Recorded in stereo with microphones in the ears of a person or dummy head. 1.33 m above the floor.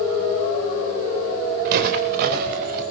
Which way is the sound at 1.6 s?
50° right (ahead or behind).